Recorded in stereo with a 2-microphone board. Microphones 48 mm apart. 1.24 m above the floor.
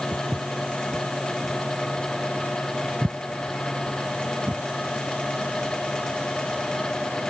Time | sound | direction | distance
0.1 | footsteps | 50° right (ahead or behind) | ?